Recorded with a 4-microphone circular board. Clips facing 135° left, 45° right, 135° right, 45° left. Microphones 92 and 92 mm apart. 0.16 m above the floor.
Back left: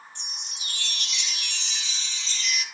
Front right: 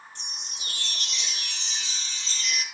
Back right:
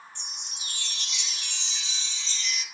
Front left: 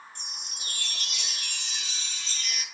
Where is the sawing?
I don't hear sawing.